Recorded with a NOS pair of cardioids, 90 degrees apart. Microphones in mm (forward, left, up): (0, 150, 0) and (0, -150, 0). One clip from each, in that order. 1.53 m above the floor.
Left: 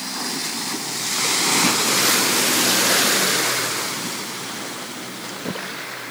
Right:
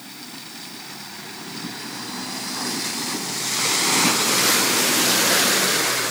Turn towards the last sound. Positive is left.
No sound to turn to.